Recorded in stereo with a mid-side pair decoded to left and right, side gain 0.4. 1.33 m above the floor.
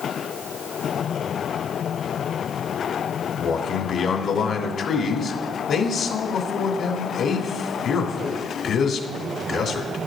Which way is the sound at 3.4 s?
65° left.